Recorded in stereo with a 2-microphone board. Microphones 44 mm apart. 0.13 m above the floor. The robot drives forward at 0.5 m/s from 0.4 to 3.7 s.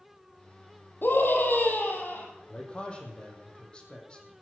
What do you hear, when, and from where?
1.0 s a scream: 60° left (ahead or behind), 3.5 m; by 2.3 s 50° left (ahead or behind), 4 m
2.5 s a man speaking: 25° left (ahead or behind), 4.5 m